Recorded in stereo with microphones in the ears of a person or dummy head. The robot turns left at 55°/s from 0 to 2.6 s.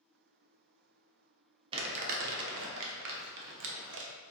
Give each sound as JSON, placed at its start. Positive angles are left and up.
{"t": 1.7, "sound": "crumpling", "side_deg": -30, "distance_m": 0.7}